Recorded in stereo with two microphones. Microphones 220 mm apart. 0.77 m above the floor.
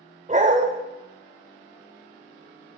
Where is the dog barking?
35° right (ahead or behind), 1.0 m.